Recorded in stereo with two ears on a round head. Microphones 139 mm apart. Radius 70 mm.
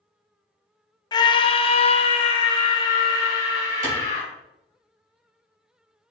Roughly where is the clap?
Right.